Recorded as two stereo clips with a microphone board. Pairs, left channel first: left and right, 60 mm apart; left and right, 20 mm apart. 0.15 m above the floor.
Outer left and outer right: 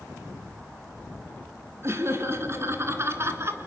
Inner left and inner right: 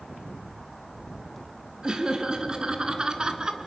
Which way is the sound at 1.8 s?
45° right (ahead or behind).